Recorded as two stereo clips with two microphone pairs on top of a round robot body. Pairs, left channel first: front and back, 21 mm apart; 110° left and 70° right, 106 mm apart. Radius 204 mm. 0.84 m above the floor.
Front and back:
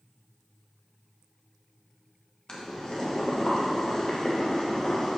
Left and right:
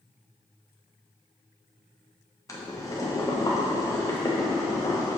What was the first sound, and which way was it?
Boiling, 50° left.